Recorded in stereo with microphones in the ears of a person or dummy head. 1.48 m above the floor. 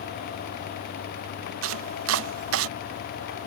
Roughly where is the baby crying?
I don't hear a baby crying.